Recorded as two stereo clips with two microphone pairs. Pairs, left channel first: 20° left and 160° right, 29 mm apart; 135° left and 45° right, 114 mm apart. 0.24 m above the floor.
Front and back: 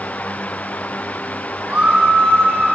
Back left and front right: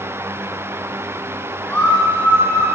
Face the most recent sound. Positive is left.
turn(degrees=-150)